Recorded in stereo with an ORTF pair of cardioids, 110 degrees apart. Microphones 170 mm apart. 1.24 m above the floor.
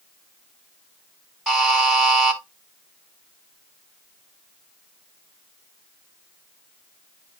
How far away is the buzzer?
About 5 m.